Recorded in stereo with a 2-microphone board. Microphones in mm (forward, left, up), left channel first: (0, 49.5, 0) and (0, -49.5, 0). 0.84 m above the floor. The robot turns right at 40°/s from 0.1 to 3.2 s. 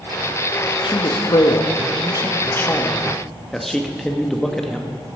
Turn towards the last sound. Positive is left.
turn(degrees=175)